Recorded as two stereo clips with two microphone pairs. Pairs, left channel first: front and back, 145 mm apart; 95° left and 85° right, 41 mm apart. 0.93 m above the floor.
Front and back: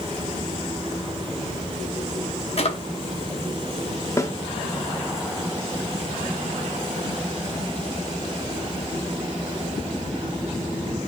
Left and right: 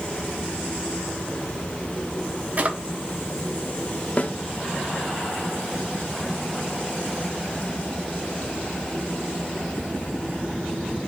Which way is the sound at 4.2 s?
65° left.